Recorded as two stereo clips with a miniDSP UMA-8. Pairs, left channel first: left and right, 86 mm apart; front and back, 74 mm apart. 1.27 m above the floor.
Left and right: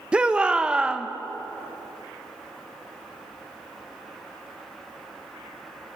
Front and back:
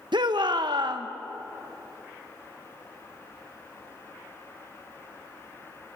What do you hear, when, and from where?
0.1 s a shout: 165° right, 0.9 m